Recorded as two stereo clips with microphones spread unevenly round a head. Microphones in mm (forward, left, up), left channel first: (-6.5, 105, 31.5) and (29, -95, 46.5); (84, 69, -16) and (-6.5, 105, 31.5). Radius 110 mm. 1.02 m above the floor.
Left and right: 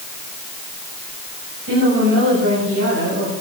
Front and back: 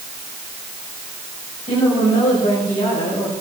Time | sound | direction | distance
1.7 | a woman speaking | 55° right | 7.5 m